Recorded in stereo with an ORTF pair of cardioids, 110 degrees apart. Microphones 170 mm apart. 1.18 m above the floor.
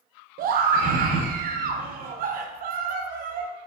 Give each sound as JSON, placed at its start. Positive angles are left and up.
{"t": 0.4, "sound": "a scream", "azimuth_deg": -60, "distance_m": 0.6}